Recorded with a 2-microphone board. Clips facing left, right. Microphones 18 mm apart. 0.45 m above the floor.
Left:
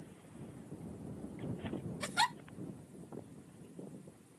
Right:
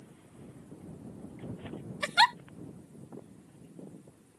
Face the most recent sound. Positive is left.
turn(degrees=-50)  # may be behind; listen again after turning